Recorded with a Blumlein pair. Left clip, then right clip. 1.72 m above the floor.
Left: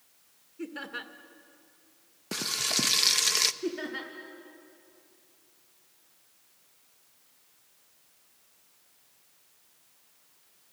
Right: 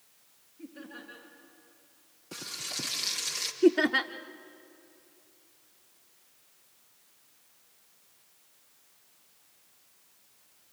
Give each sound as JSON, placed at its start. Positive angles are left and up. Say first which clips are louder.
{"t": 0.6, "sound": "laughter", "louder": "left 8 dB", "azimuth_deg": 50, "distance_m": 2.0}
{"t": 2.3, "sound": "frying", "louder": "left 8 dB", "azimuth_deg": 60, "distance_m": 0.8}
{"t": 3.6, "sound": "laughter", "louder": "right 11 dB", "azimuth_deg": -30, "distance_m": 0.7}